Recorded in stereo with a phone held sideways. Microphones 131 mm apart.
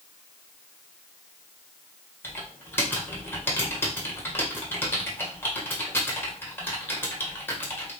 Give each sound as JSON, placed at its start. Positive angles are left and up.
{"t": 2.2, "sound": "typing on a keyboard", "side_deg": 15, "distance_m": 1.1}